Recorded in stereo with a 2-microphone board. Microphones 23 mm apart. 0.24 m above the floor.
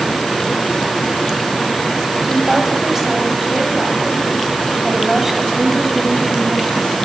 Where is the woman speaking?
20° right (ahead or behind), 1.1 m.